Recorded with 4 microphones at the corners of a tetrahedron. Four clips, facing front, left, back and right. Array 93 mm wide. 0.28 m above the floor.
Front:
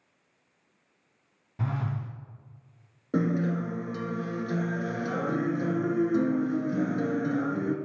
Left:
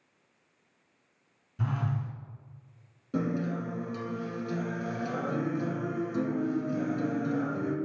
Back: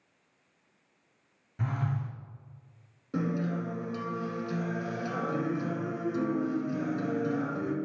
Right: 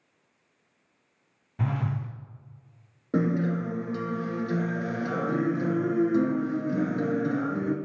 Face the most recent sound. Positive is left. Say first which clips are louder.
# right 5 dB, front 4 dB
turn(degrees=-55)